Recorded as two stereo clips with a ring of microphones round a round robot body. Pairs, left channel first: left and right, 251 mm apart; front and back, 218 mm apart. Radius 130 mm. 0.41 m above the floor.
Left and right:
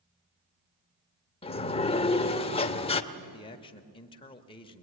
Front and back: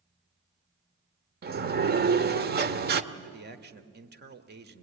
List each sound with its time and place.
1.4 s a sliding door: 150° left, 1.1 m
3.1 s a man speaking: 155° left, 1.6 m